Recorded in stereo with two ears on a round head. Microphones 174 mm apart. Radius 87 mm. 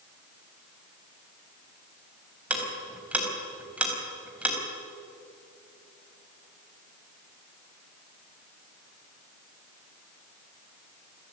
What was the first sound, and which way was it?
Ticking, 10° right (ahead or behind).